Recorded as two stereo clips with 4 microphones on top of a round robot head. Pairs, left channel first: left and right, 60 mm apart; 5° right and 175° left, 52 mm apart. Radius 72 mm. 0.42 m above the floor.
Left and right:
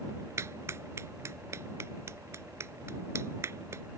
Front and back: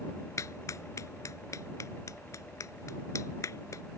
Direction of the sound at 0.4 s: 40° right.